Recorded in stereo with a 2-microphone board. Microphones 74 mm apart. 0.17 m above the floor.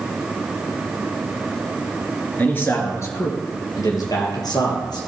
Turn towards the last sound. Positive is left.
turn(degrees=70)  # may be behind; listen again after turning